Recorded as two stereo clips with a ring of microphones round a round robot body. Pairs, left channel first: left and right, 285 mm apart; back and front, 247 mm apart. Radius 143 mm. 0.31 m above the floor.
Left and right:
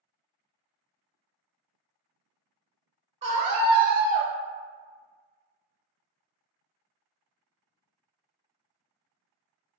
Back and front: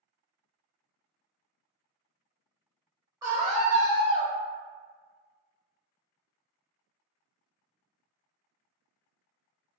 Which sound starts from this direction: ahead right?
A scream, at 3.2 s.